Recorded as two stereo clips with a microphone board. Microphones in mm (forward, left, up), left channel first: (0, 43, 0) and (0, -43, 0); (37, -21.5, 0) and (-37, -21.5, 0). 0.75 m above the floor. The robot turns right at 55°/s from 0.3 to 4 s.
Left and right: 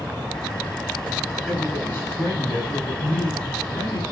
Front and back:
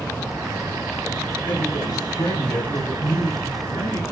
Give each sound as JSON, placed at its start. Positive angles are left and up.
{"t": 1.5, "sound": "a man speaking", "azimuth_deg": -5, "distance_m": 7.5}